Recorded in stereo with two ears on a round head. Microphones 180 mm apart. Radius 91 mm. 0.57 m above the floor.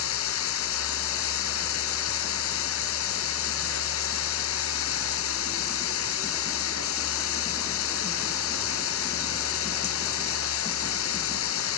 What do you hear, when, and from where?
0.0 s running water: 80° left